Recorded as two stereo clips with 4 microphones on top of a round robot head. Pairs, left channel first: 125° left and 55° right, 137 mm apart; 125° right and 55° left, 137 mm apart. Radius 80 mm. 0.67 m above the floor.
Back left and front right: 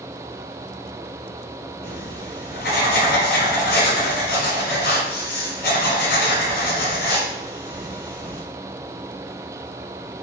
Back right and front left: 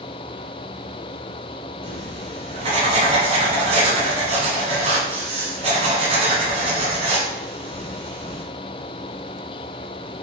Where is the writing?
100° left, 1.4 m.